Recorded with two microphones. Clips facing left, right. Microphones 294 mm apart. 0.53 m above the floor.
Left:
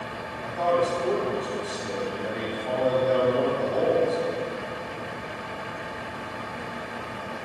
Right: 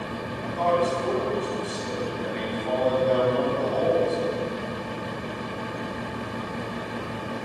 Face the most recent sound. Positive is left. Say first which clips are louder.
# even
turn(degrees=5)  # may be behind; listen again after turning